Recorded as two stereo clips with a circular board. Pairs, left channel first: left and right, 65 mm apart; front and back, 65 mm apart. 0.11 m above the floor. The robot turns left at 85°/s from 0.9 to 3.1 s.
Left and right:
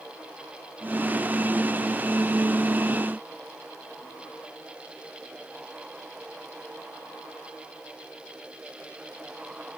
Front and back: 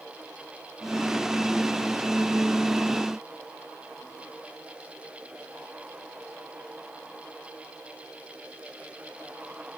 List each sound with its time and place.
Only background noise.